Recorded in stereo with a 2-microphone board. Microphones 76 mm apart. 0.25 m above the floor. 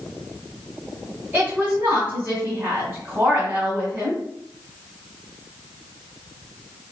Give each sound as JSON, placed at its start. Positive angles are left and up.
{"t": 1.3, "sound": "a woman speaking", "side_deg": -30, "distance_m": 1.4}